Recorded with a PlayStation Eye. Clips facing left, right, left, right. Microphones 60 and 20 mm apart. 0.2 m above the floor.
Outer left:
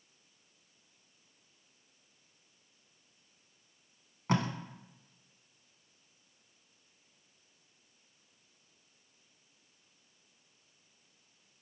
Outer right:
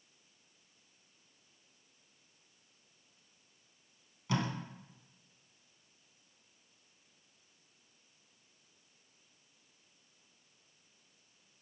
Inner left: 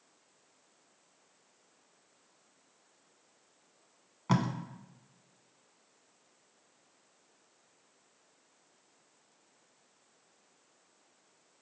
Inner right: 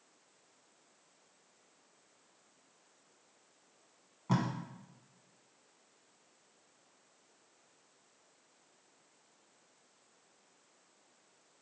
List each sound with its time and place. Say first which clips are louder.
4.3 s tape being pulled: outer left 4 dB, inner left 3 dB; 50° left (ahead or behind), 0.7 m